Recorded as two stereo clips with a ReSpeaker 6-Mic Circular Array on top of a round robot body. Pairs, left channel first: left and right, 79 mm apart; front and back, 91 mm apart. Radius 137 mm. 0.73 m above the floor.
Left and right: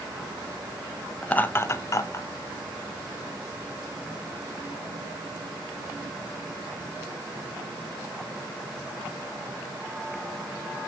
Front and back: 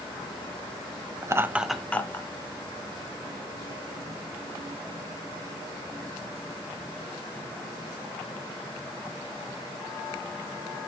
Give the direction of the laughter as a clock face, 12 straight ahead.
7 o'clock.